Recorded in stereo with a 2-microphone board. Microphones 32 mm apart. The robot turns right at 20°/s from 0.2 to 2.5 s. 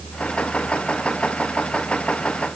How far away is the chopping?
No chopping in this recording.